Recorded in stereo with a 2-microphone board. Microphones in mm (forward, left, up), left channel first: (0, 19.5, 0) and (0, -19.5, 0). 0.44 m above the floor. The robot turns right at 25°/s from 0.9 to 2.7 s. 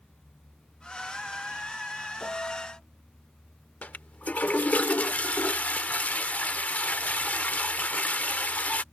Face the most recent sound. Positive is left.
turn(degrees=45)  # may be behind; listen again after turning